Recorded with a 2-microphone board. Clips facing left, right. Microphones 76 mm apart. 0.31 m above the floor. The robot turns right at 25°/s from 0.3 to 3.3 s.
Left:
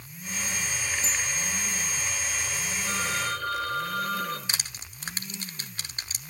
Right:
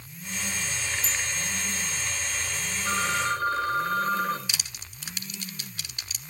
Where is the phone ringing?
50° right (ahead or behind), 3 m; by 4.4 s 40° right (ahead or behind), 3 m.